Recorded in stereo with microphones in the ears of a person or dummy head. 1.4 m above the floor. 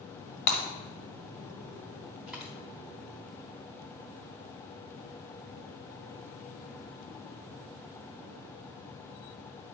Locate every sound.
0.5 s breaking glass: 40° left (ahead or behind), 1.9 m
2.3 s a dropped coin: 5° right (ahead or behind), 1.1 m